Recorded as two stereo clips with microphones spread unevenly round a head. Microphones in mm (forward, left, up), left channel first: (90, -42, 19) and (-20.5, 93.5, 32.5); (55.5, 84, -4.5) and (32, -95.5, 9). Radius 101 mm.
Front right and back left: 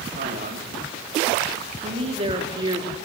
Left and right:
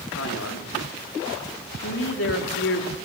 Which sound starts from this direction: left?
A man speaking, at 0.2 s.